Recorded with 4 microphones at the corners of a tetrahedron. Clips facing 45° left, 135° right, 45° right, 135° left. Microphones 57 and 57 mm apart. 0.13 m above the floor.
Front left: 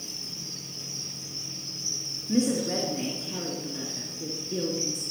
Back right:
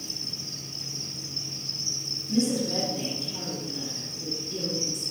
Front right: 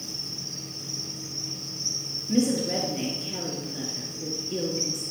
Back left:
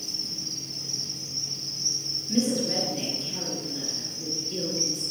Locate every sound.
0.0 s an insect: 140° left, 5.5 m
2.3 s a woman speaking: 20° left, 2 m